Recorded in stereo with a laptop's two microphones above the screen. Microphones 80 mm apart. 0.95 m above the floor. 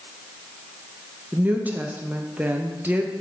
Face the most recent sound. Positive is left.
turn(degrees=-20)  # may be behind; listen again after turning